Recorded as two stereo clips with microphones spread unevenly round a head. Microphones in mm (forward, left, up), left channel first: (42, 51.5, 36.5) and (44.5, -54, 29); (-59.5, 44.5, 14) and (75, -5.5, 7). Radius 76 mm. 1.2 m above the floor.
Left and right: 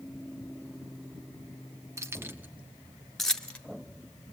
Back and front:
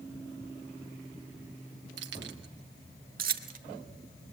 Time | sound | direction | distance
2.0 | keys jangling | 25° right | 1.6 m